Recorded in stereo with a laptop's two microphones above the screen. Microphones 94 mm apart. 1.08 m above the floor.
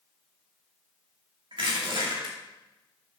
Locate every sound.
1.5 s crushing: 65° right (ahead or behind), 2.5 m